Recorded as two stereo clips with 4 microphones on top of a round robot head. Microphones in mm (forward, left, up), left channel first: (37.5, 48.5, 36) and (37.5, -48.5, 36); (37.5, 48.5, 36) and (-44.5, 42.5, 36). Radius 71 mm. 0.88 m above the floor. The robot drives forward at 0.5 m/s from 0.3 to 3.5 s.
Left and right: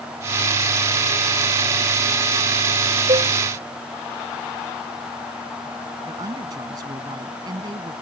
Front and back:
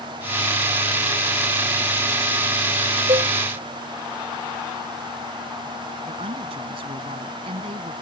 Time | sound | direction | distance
3.1 | a cowbell | 135° right | ?
6.1 | a woman speaking | 150° right | ?